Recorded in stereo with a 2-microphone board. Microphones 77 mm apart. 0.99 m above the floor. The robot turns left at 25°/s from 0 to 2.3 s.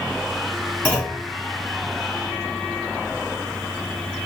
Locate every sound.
0.8 s a clunk: 20° left (ahead or behind), 1.8 m; by 1.2 s 10° left (ahead or behind), 1.8 m